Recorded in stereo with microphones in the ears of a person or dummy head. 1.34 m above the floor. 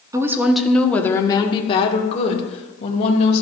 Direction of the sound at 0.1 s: 15° right (ahead or behind).